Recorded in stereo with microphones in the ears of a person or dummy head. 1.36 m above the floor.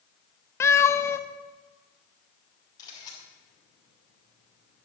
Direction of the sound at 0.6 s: 10° left (ahead or behind).